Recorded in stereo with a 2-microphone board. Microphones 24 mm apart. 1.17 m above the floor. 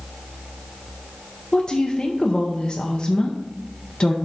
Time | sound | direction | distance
1.5 | a woman speaking | 30° left (ahead or behind) | 0.7 m